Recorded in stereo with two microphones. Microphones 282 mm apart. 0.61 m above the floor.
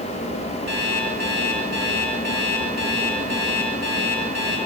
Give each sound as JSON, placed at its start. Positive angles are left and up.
{"t": 0.7, "sound": "an alarm clock", "side_deg": -55, "distance_m": 5.0}